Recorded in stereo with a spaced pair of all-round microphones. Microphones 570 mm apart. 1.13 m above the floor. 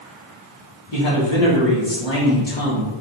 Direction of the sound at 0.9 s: 50° left (ahead or behind).